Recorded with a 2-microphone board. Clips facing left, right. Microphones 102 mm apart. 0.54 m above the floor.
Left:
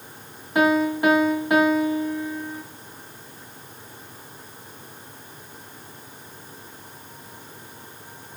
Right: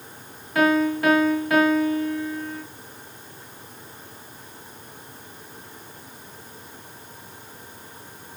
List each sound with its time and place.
0.6 s a piano: 20° left (ahead or behind), 0.9 m